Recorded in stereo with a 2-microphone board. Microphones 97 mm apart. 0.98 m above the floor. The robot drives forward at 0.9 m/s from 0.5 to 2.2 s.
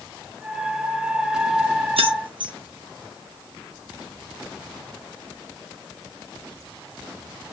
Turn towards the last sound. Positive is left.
turn(degrees=-55)  # may be behind; listen again after turning